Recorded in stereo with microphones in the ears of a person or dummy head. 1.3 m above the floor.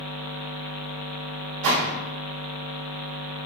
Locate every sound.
1.6 s a gunshot: 85° right, 1.9 m